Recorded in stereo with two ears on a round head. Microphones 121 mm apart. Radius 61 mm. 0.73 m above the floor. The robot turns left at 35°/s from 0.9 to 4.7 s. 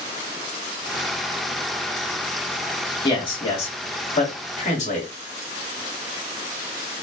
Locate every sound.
3.0 s a man speaking: 30° left (ahead or behind), 1.4 m; by 5.1 s 55° left (ahead or behind), 1.4 m